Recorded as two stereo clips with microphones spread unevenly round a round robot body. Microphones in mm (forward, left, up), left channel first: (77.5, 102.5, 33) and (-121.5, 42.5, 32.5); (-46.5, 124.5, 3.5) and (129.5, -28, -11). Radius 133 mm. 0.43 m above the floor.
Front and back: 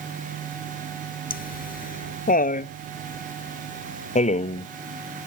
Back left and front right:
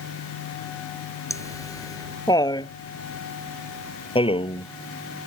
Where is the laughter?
60° left; by 4.7 s 75° left.